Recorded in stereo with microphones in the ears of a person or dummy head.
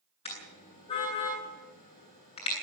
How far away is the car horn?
About 9.5 m.